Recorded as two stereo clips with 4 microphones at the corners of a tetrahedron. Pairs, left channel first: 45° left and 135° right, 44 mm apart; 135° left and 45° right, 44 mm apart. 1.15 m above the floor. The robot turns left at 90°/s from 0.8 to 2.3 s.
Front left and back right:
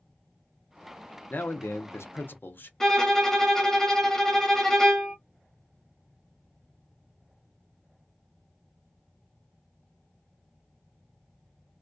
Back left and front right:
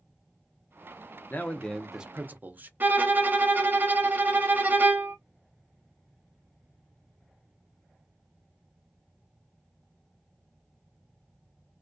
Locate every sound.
1.3 s a man speaking: 90° left, 0.6 m; by 2.7 s straight ahead, 0.6 m
2.8 s a violin: 30° right, 0.7 m